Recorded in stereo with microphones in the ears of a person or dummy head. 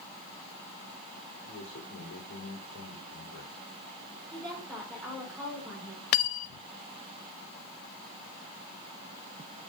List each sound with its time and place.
1.4 s a man speaking: 85° left, 4 m
4.3 s a woman speaking: 10° left (ahead or behind), 5.5 m
6.1 s cutlery clinking: 55° left (ahead or behind), 0.7 m